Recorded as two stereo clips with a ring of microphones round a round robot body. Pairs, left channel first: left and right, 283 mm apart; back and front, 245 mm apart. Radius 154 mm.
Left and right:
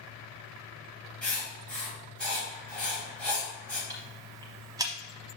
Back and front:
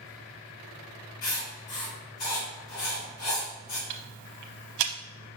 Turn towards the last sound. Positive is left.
turn(degrees=-15)